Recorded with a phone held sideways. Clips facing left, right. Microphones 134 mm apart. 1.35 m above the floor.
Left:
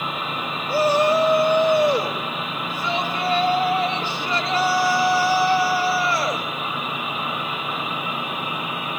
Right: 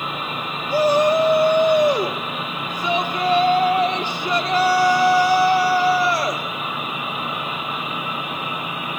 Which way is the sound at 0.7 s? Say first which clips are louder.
Right 2 dB; 15° right (ahead or behind).